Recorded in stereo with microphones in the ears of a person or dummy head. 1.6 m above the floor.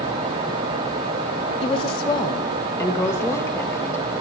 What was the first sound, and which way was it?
A woman speaking, 30° left (ahead or behind).